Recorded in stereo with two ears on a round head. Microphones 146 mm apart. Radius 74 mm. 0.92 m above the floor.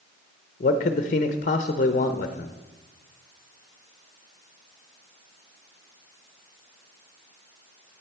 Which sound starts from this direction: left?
A man speaking, at 0.6 s.